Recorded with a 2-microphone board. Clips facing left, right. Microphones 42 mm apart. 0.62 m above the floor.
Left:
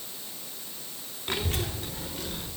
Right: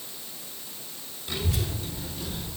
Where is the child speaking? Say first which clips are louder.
Left 1 dB; 45° left (ahead or behind), 0.9 m; by 2.5 s 55° left (ahead or behind), 2 m.